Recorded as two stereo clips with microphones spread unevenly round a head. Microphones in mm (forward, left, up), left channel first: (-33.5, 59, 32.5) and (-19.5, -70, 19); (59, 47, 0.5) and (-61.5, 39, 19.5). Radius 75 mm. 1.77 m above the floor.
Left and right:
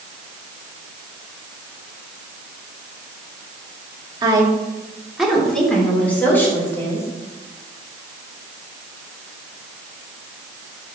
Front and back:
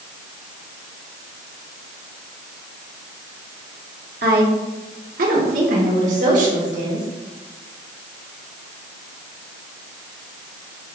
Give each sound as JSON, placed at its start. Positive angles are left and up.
{"t": 4.2, "sound": "a woman speaking", "azimuth_deg": -145, "distance_m": 1.8}